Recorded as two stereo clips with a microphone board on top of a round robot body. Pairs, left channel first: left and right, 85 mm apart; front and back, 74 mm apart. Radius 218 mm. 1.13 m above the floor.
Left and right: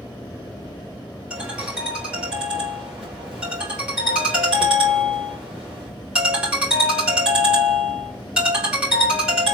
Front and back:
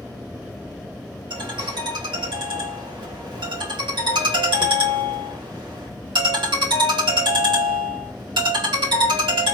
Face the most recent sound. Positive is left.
turn(degrees=-170)